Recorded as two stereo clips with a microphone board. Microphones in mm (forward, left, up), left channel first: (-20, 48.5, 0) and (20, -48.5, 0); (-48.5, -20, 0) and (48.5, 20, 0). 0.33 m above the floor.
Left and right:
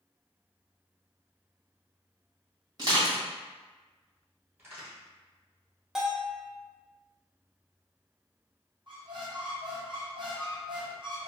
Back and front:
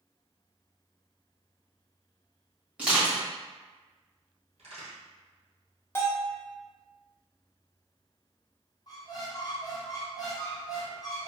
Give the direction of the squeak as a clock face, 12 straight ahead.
4 o'clock.